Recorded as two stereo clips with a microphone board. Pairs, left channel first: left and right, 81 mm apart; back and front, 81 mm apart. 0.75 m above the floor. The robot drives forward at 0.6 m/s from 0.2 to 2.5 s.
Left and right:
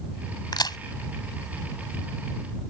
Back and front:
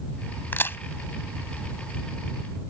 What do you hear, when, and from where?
0.5 s a crack: 115° left; by 0.8 s 120° left